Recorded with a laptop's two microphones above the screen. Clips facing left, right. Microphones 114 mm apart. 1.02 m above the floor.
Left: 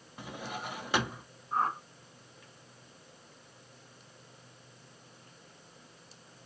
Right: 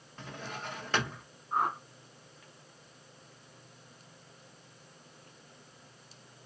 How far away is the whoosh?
About 1.9 m.